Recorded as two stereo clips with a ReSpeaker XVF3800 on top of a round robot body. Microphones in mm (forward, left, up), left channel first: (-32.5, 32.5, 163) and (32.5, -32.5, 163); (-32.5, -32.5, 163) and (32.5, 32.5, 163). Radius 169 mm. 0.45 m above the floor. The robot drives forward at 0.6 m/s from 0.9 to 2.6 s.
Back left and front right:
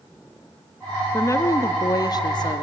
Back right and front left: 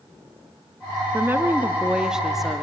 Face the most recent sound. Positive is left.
turn(degrees=135)